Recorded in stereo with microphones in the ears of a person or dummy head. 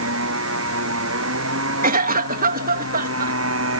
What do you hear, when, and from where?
0.0 s a motorcycle: 75° right (ahead or behind)
1.8 s a cough: 50° right (ahead or behind)